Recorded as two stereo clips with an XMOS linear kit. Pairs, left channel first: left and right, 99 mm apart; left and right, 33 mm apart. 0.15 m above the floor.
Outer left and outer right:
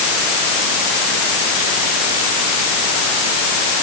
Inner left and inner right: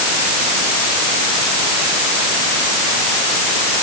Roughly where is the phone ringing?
I don't hear a phone ringing.